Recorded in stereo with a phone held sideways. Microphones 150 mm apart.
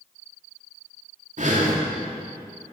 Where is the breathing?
60° right (ahead or behind), 3 m.